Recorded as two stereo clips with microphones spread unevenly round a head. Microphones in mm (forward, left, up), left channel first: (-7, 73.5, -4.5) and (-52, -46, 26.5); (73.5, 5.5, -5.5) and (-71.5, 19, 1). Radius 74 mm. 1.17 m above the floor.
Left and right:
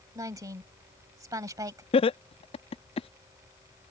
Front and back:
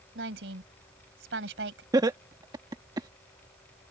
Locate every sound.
0.1 s a woman speaking: 175° right
1.9 s laughter: 110° left